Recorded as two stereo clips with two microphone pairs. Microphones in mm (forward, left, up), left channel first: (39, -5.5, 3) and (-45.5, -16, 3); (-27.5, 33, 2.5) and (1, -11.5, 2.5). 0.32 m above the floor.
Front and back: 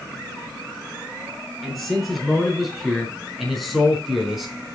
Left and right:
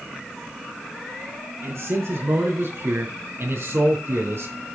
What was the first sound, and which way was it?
A man speaking, 85° right.